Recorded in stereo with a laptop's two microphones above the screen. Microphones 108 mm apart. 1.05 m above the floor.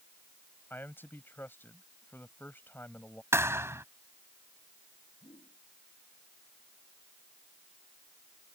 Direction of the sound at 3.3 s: 25° right (ahead or behind).